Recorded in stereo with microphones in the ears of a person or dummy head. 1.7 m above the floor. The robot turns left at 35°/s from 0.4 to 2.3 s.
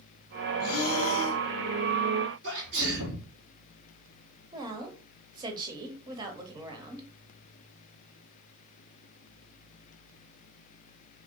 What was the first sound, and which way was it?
Breathing, 60° left (ahead or behind).